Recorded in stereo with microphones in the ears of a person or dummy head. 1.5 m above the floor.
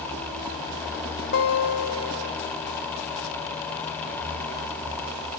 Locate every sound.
1.3 s a guitar: 60° left (ahead or behind), 2.5 m